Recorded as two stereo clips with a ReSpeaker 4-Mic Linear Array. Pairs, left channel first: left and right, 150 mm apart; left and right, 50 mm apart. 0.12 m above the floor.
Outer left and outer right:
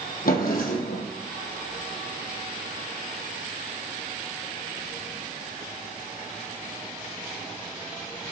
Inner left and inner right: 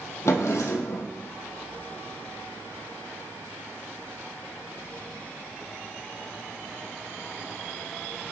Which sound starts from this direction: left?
A drawer, at 0.2 s.